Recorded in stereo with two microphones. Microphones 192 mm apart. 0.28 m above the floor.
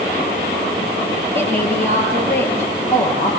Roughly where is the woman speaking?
Centre.